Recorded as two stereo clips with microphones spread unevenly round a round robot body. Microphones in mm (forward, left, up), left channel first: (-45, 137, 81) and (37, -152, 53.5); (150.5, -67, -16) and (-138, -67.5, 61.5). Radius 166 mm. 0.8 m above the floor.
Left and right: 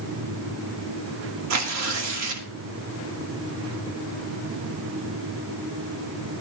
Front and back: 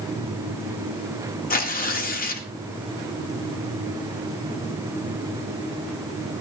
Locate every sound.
1.5 s tearing paper: 50° right, 2 m